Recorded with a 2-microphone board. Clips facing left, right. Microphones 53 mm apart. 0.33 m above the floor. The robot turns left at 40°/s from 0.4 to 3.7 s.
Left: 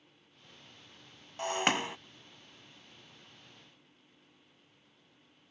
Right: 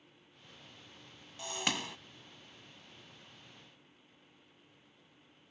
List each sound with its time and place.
1.4 s breaking glass: 50° left (ahead or behind); by 2.0 s 25° left (ahead or behind)